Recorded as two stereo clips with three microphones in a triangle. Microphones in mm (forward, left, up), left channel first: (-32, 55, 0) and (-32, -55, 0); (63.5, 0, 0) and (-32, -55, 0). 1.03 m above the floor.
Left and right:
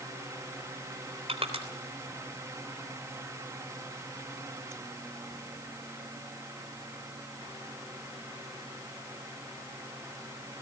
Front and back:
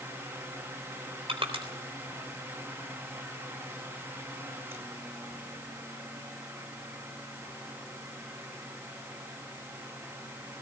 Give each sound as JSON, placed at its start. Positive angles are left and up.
{"t": 1.3, "sound": "crushing", "azimuth_deg": -115, "distance_m": 3.5}